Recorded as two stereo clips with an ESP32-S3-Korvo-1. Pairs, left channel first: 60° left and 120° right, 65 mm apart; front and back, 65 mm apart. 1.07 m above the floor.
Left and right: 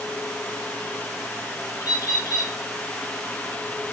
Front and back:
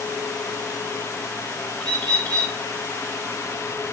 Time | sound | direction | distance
1.8 | a bird | 70° left | 2.5 m